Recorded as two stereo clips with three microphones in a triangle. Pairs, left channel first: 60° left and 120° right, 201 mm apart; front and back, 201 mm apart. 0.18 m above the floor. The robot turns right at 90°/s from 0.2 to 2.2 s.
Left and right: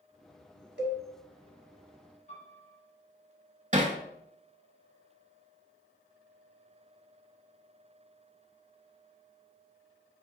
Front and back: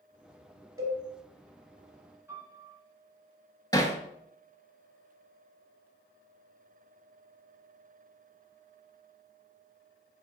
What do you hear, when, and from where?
0.8 s a cowbell: 110° right, 1.4 m; by 1.0 s 90° right, 1.4 m
2.3 s a piano: 105° left, 1.9 m
3.7 s hammering: 70° right, 0.7 m